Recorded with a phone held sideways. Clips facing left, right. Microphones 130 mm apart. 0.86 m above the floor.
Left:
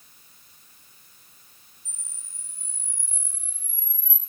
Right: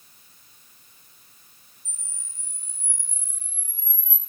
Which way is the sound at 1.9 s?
80° right.